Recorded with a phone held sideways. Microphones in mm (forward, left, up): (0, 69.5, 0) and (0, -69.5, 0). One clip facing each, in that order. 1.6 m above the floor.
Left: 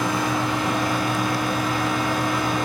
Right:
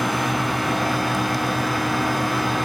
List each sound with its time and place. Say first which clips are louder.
0.0 s a fan: even; 55° right (ahead or behind), 1.7 m